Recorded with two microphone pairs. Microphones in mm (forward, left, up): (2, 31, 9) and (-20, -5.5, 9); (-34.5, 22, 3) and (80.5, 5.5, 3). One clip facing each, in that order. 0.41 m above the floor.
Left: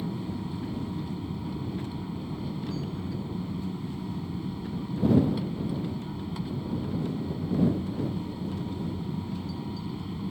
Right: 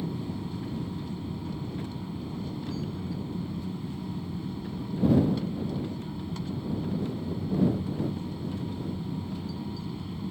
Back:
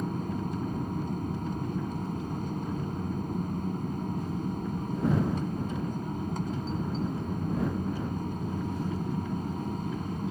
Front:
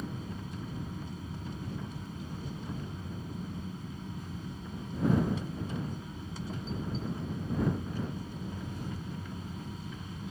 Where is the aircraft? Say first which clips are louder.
Even, back 8 dB; 140° left.